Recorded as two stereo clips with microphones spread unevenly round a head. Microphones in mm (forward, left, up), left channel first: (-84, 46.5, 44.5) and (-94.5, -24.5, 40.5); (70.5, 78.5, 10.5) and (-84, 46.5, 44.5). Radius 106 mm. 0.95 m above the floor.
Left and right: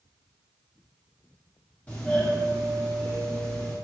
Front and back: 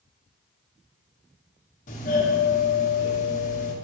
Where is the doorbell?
5° left, 1.3 m.